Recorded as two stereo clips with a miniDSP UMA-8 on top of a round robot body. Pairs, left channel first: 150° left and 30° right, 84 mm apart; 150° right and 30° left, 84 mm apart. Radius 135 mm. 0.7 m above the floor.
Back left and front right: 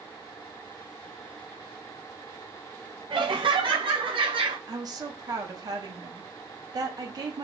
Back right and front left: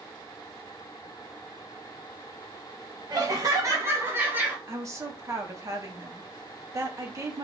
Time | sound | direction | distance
3.1 | laughter | 10° right | 2 m
4.7 | a woman speaking | 10° right | 1.6 m